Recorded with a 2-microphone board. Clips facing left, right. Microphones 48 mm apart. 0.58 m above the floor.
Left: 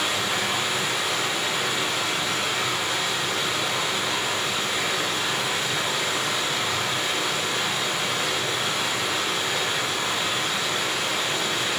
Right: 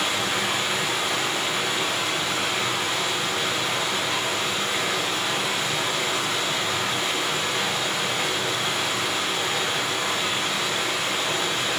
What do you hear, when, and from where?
0.0 s running water: 55° right (ahead or behind), 1.5 m